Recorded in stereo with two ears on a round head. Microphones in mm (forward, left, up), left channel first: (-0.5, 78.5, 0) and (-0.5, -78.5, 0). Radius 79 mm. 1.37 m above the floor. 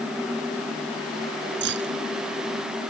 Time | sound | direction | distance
1.6 | keys jangling | 70° right (ahead or behind) | ?